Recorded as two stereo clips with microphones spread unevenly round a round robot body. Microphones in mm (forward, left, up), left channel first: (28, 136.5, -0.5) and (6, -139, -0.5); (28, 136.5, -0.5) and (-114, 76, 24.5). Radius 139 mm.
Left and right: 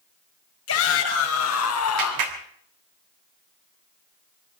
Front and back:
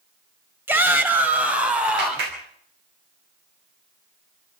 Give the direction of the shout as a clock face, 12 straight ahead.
8 o'clock.